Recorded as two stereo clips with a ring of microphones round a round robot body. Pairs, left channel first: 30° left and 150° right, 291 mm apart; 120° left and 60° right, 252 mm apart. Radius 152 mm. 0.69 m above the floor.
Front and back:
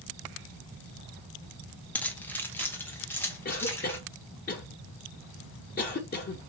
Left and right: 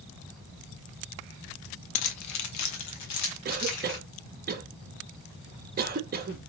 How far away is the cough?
About 0.7 m.